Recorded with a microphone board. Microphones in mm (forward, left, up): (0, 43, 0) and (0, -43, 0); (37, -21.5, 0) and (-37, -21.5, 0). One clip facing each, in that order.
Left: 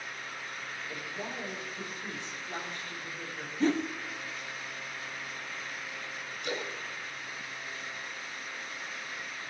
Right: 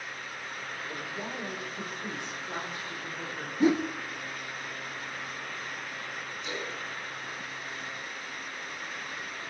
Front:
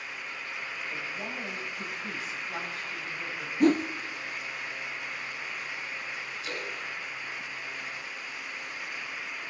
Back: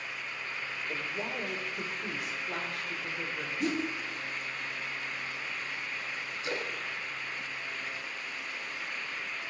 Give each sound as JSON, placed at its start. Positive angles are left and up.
{"t": 0.9, "sound": "a woman speaking", "azimuth_deg": -165, "distance_m": 5.0}
{"t": 3.6, "sound": "a whoosh", "azimuth_deg": -15, "distance_m": 0.7}
{"t": 6.4, "sound": "a splash", "azimuth_deg": 125, "distance_m": 3.5}